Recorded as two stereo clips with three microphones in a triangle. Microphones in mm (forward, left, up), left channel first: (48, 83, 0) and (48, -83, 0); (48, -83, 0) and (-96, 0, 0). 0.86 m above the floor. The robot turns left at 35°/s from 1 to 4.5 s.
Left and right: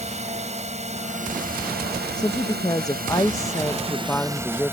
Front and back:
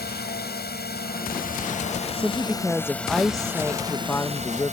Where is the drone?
45° right; by 4.7 s 165° right.